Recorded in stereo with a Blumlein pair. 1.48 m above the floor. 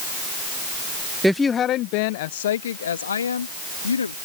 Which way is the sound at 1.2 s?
5° right.